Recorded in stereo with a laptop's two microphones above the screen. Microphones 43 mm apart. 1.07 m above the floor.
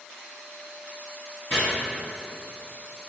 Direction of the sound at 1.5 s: 20° left (ahead or behind).